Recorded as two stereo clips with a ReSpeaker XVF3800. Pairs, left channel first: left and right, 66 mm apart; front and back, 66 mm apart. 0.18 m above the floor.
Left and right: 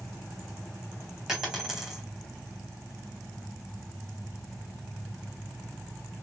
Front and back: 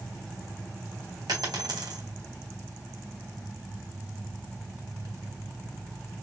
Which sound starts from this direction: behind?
A dropped coin, at 1.3 s.